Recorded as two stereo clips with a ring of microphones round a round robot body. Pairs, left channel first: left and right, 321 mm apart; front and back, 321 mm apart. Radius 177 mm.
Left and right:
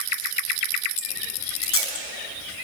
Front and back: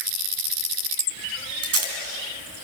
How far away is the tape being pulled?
About 4 m.